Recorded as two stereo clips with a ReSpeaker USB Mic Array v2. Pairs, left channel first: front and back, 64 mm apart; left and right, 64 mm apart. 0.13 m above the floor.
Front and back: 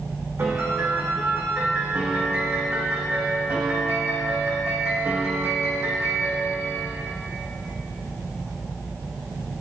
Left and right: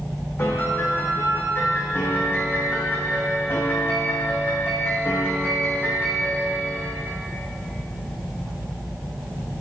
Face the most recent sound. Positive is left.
turn(degrees=140)